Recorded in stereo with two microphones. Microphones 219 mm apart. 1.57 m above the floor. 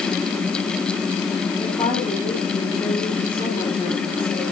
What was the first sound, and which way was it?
A woman speaking, 25° left (ahead or behind).